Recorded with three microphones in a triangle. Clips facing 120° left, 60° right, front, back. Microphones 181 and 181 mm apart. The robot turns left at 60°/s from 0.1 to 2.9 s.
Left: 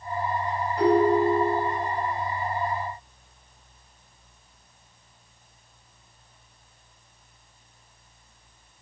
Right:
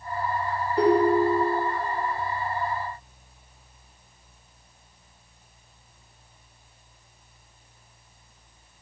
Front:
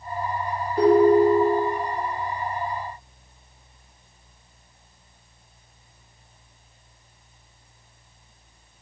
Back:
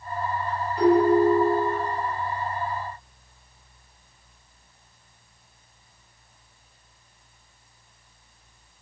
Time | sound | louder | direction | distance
0.8 | a ringtone | even, front 3 dB | 35° right | 0.8 m